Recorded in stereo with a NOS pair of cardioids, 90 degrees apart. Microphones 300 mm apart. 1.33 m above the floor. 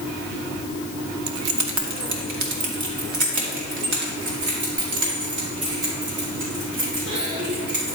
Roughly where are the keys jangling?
Ahead right.